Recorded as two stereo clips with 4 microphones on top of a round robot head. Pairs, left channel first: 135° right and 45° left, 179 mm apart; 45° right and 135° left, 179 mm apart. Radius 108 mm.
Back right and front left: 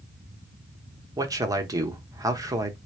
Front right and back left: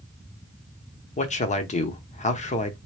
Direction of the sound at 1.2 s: 20° right.